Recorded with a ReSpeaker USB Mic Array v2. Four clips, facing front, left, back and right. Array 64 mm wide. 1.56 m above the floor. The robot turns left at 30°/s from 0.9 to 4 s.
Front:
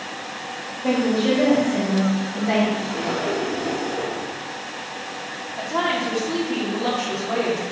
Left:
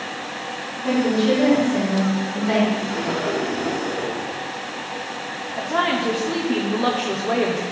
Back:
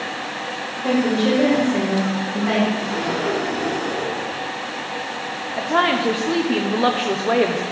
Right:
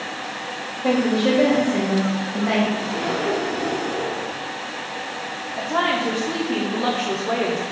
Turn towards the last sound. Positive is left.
turn(degrees=175)